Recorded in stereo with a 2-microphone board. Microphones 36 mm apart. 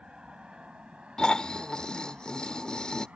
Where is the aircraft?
25° right (ahead or behind); by 3.2 s 35° right (ahead or behind).